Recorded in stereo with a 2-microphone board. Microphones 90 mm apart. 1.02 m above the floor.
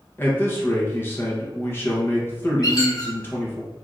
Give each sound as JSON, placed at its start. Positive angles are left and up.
{"t": 0.2, "sound": "a man speaking", "side_deg": 25, "distance_m": 0.8}
{"t": 2.6, "sound": "a squeak", "side_deg": 45, "distance_m": 0.9}